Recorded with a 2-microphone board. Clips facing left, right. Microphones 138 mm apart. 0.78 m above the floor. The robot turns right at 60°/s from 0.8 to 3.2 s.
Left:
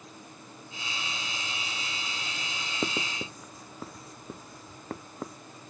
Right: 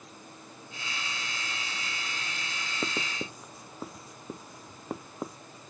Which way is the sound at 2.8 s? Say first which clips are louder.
Left 2 dB; 10° left (ahead or behind).